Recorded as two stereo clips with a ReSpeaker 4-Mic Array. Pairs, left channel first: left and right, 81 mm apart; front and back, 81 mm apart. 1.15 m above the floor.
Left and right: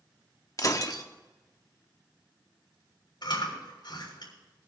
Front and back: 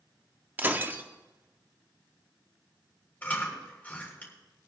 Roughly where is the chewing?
Left.